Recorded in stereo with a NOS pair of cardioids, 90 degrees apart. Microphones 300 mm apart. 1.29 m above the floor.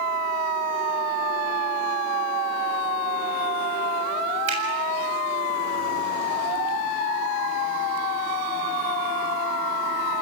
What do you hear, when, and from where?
4.5 s a finger snap: 60° right, 7.5 m